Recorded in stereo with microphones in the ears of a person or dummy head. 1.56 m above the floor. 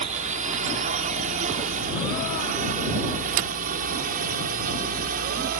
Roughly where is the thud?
Right.